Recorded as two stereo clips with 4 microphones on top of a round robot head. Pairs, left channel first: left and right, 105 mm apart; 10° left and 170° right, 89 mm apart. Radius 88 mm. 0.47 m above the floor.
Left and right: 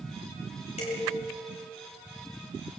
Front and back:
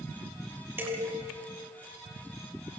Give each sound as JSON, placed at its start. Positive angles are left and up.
{"t": 0.8, "sound": "dishes clattering", "azimuth_deg": 120, "distance_m": 8.0}